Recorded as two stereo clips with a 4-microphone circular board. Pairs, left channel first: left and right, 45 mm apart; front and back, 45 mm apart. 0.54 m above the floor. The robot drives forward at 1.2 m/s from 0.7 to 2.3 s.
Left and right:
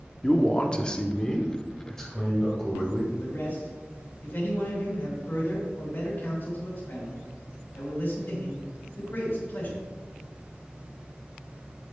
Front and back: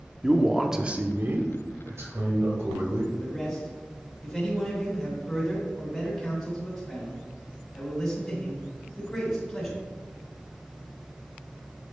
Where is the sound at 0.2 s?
105° left, 0.6 m; by 3.0 s 175° left, 2 m.